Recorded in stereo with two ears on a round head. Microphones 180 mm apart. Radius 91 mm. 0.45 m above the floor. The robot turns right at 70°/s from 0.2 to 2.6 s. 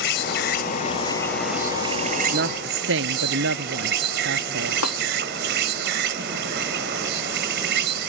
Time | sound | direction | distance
0.0 | an insect | 90° left | ?
2.2 | a woman speaking | 45° right (ahead or behind) | ?
4.8 | a snare drum | 85° left | ?